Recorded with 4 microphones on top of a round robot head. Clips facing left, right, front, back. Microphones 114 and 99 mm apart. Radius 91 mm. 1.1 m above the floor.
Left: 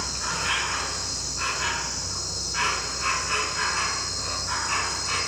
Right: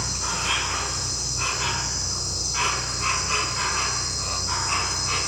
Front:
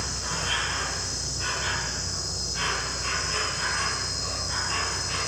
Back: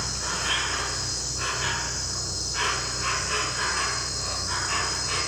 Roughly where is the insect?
Behind right.